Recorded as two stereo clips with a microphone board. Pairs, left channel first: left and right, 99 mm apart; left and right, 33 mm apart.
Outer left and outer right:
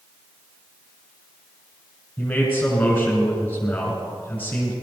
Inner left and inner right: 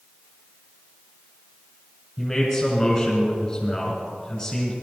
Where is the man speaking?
20° left (ahead or behind), 2.5 m.